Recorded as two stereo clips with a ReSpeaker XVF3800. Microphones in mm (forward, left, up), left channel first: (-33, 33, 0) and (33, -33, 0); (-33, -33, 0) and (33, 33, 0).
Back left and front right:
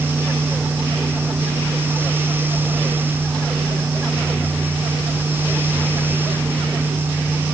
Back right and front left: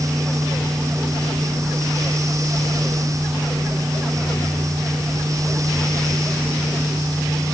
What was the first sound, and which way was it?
Only background noise.